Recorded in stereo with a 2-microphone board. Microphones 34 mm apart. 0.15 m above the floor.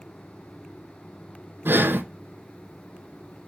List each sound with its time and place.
1.6 s breathing: 80° right, 0.9 m